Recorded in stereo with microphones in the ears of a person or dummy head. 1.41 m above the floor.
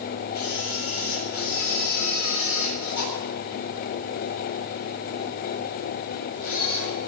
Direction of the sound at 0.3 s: 55° left (ahead or behind).